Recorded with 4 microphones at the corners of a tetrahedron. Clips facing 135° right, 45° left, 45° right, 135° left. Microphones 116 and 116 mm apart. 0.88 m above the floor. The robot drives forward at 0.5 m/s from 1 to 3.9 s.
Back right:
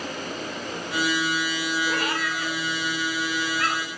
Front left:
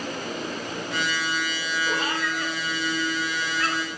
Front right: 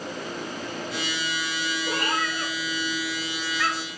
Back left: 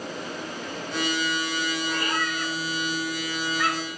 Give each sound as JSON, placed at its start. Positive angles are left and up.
{"t": 1.9, "sound": "a cat meowing", "azimuth_deg": -30, "distance_m": 0.7}